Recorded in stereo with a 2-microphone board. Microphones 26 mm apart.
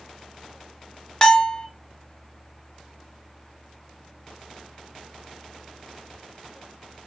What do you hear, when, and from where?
1.2 s a bell: 20° left (ahead or behind), 0.9 m